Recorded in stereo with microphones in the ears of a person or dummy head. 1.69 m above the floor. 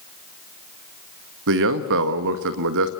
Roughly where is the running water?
I don't hear running water.